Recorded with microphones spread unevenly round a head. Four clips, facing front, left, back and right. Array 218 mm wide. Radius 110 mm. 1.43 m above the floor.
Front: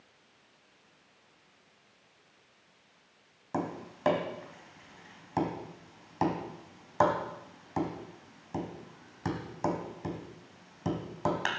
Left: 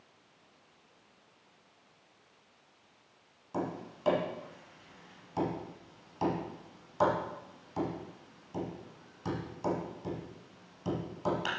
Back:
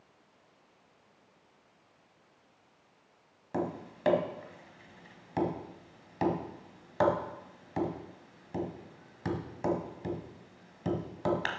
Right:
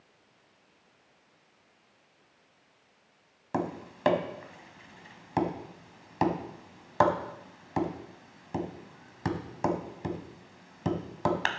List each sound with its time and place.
3.5 s tapping: 80° right, 1.6 m